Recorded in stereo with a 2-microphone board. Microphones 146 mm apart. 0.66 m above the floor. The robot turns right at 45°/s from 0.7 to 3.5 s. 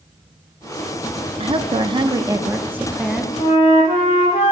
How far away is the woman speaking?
About 0.6 m.